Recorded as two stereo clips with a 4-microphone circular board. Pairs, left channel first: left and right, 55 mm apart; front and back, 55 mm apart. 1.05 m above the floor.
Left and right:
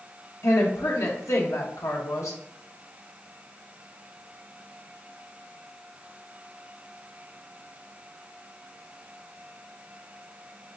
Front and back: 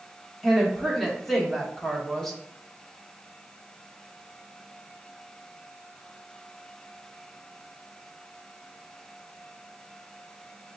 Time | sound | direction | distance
0.4 | a woman speaking | 85° left | 1.1 m